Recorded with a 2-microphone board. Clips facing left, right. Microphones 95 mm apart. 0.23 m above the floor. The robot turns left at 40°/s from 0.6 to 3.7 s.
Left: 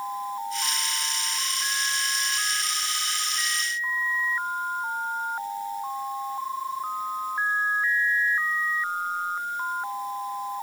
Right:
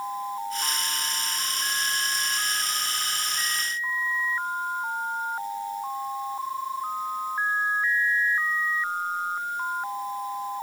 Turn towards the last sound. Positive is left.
No sound to turn to.